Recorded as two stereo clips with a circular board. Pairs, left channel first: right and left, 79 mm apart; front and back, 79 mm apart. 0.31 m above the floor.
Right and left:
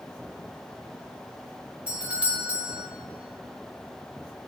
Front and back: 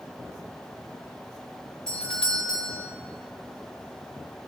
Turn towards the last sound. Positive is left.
turn(degrees=55)